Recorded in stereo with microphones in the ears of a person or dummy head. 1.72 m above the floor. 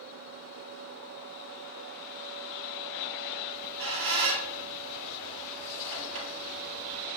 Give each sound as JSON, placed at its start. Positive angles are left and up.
{"t": 3.5, "sound": "a squeak", "side_deg": -55, "distance_m": 1.5}